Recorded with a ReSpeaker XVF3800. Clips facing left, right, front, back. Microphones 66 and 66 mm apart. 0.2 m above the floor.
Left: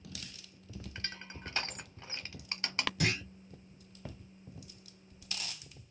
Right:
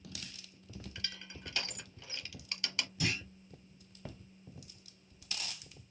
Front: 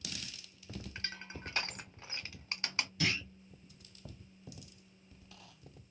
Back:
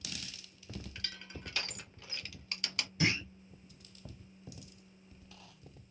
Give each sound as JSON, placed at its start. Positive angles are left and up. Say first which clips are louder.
{"t": 0.9, "sound": "crushing", "louder": "left 4 dB, front 2 dB", "azimuth_deg": 50, "distance_m": 1.1}
{"t": 3.0, "sound": "a clunk", "louder": "left 2 dB, back 3 dB", "azimuth_deg": 110, "distance_m": 2.0}